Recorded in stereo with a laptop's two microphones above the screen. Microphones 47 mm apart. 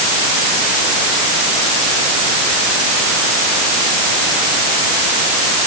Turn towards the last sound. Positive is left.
No sound to turn to.